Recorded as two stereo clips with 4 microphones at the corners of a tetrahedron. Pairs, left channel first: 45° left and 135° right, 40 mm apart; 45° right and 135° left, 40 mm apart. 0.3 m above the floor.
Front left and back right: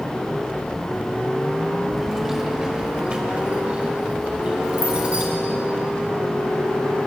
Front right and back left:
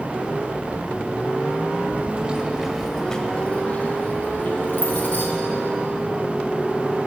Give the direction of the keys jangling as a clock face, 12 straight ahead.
8 o'clock.